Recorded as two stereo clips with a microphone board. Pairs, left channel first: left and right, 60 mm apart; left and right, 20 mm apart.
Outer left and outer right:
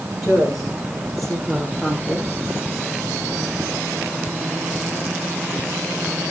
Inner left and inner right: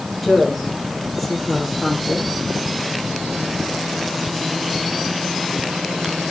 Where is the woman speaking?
Centre (ahead or behind), 9 m.